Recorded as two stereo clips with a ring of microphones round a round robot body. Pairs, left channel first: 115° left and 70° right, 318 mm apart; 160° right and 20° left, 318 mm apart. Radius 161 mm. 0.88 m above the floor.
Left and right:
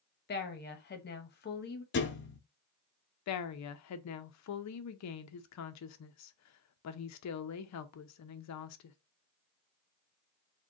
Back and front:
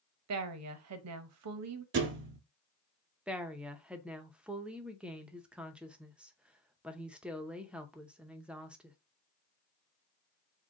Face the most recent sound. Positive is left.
turn(degrees=110)